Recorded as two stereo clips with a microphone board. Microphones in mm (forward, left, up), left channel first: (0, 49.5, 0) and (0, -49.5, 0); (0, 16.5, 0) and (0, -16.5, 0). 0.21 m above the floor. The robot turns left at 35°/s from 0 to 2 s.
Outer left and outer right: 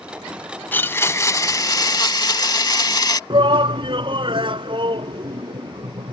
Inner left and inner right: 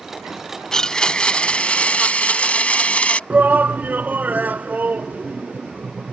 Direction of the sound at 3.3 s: 60° right (ahead or behind).